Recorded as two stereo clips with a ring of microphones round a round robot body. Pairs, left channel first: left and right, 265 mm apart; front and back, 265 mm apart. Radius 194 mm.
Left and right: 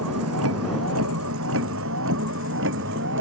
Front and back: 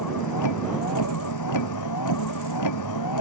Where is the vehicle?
35° right; by 3.2 s 30° right.